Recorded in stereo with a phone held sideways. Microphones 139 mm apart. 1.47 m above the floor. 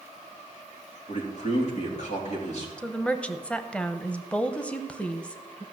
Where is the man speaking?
55° left (ahead or behind), 3 m.